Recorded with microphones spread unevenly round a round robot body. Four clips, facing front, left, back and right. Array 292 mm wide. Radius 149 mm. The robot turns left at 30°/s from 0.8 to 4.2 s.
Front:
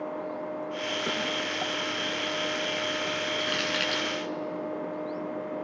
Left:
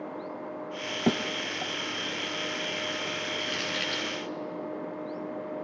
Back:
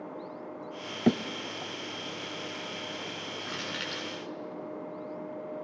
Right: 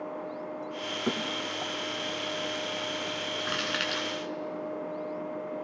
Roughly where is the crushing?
Ahead right.